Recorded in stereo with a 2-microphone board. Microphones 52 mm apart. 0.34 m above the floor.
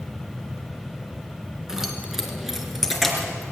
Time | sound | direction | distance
1.7 | keys jangling | 10° right (ahead or behind) | 3 m